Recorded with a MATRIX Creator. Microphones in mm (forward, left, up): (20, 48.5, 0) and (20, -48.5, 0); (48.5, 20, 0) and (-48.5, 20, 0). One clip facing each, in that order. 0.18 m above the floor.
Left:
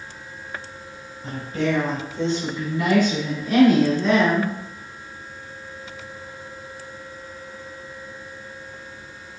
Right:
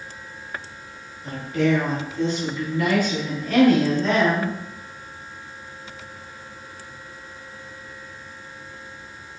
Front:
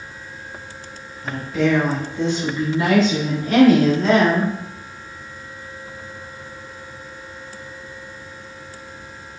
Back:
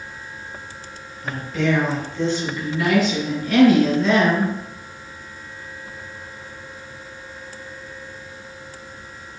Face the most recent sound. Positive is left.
turn(degrees=10)